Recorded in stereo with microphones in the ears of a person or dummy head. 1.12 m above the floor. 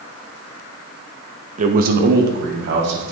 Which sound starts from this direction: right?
A man speaking, at 1.6 s.